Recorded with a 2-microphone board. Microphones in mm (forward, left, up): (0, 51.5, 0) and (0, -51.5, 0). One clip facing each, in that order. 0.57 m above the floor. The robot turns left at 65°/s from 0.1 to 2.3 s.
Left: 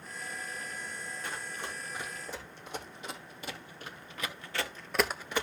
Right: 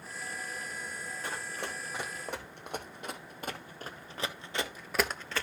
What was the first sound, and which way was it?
Running footsteps, 40° right (ahead or behind).